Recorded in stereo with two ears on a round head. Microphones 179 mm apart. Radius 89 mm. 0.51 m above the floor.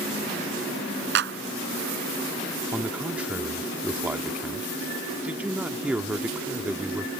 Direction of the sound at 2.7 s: 5° right (ahead or behind).